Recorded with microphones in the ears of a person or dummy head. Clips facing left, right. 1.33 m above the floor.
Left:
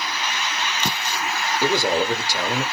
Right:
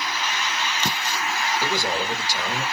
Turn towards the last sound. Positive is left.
turn(degrees=50)  # may be behind; listen again after turning